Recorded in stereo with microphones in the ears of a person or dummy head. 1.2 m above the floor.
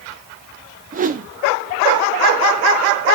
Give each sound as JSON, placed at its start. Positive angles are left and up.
{"t": 0.9, "sound": "a whoosh", "side_deg": -40, "distance_m": 0.7}